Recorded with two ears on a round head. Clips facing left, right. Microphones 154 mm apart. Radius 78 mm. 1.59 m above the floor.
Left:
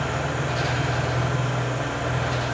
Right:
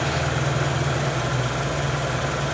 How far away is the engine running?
About 0.8 m.